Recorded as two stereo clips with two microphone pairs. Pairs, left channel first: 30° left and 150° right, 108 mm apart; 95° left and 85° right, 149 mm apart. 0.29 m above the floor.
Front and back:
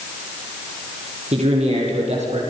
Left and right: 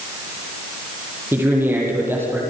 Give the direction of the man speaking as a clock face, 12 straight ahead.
5 o'clock.